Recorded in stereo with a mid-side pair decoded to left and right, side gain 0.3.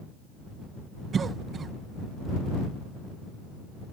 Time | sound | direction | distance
1.1 | a cough | 65° right | ?